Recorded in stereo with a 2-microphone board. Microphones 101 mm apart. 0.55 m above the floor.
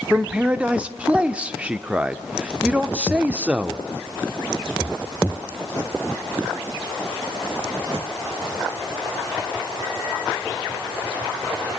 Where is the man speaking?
15° right (ahead or behind), 0.9 m.